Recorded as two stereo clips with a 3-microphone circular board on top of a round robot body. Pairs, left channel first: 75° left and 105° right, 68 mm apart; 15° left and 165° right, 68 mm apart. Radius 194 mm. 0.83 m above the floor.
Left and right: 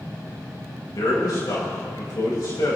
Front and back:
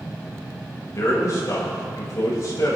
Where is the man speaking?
55° left, 5.5 m.